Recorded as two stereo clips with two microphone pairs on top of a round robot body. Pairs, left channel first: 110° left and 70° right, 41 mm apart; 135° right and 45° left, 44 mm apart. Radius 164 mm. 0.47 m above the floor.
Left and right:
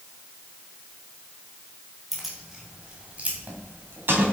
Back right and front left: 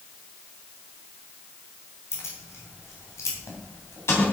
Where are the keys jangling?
160° right, 3 m; by 4.2 s 105° right, 3 m.